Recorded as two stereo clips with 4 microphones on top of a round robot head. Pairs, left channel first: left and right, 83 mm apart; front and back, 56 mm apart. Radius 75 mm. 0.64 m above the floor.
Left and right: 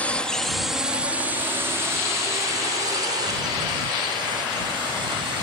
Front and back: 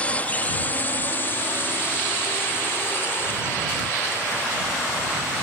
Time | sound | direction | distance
0.0 | a drone | 35° left | ?